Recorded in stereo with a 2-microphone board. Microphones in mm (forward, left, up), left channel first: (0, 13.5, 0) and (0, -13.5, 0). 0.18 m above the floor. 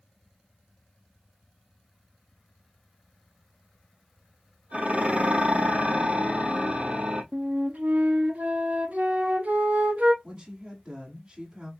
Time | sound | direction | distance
4.7 | dishes clattering | 45° right (ahead or behind) | 3.5 m
7.3 | a flute | 85° right | 0.9 m
10.2 | a woman speaking | 35° right (ahead or behind) | 1.5 m